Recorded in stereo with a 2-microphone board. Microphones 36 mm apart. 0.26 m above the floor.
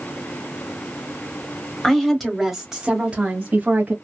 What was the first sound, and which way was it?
A woman speaking, 15° left (ahead or behind).